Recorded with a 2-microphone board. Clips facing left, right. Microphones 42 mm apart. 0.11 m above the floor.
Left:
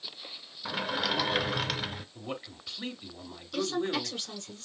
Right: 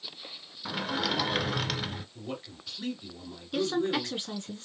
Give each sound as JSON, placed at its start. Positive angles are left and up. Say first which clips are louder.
{"t": 0.7, "sound": "a sliding door", "louder": "even", "side_deg": 0, "distance_m": 0.6}
{"t": 2.1, "sound": "a man speaking", "louder": "even", "side_deg": 25, "distance_m": 2.0}
{"t": 3.5, "sound": "a woman speaking", "louder": "right 2 dB", "side_deg": -25, "distance_m": 1.3}